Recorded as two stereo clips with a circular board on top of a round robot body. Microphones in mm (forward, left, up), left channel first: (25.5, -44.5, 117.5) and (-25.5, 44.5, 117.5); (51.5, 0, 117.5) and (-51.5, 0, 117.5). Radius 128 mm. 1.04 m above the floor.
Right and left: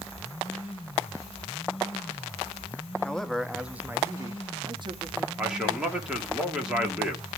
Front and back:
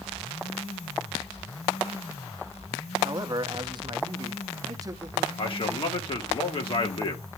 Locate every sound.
3.0 s a man speaking: 140° right, 1.0 m; by 5.3 s 125° left, 1.0 m
5.4 s a man speaking: 35° left, 2 m